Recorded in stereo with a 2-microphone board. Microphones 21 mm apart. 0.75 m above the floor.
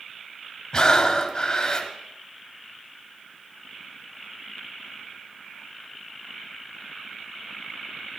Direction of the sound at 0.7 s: 35° left (ahead or behind).